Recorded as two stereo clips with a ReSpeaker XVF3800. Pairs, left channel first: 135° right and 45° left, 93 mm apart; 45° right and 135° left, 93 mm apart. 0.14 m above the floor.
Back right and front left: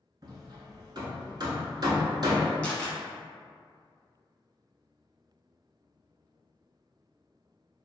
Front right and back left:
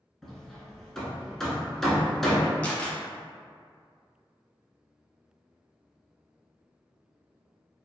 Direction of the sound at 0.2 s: 40° left.